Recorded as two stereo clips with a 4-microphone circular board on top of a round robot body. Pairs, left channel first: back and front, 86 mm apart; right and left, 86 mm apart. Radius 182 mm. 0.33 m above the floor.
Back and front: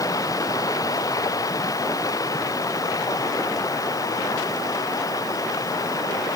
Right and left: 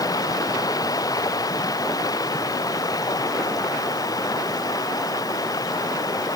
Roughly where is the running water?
Behind right.